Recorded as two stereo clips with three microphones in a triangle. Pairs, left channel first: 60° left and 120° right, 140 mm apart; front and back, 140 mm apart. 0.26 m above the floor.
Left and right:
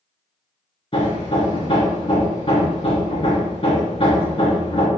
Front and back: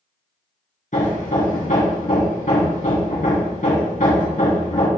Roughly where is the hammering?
Ahead.